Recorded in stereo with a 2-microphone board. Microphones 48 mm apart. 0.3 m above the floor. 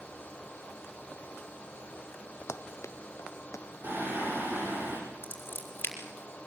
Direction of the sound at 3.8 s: 45° right (ahead or behind).